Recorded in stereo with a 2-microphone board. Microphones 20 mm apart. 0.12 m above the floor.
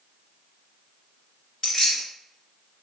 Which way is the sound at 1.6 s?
35° left (ahead or behind).